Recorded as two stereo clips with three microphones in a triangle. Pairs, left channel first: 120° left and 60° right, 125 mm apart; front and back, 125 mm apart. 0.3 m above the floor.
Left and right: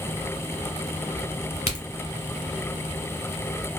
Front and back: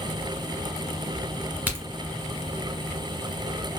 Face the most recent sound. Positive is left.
turn(degrees=105)